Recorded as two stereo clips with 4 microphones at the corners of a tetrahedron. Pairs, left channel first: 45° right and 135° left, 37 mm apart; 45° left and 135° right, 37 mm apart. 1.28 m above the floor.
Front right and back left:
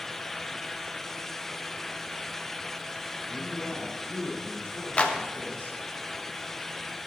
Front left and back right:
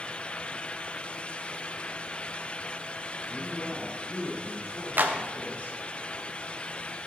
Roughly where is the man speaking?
Ahead.